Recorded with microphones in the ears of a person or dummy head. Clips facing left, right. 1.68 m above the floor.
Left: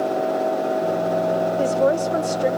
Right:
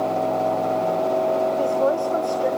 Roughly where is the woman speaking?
Left.